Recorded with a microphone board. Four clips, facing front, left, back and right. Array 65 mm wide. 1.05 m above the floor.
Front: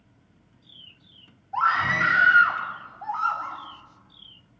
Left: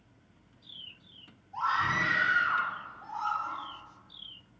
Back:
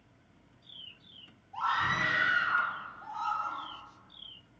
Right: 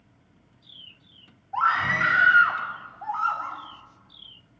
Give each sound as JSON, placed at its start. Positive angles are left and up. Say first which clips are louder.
{"t": 1.5, "sound": "a scream", "louder": "right 6 dB, front 8 dB", "azimuth_deg": -45, "distance_m": 7.5}